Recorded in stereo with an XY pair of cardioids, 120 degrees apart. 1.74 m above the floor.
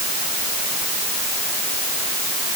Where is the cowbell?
No cowbell in this recording.